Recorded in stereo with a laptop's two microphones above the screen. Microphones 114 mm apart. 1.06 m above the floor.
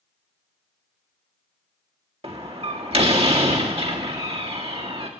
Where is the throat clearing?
I don't hear throat clearing.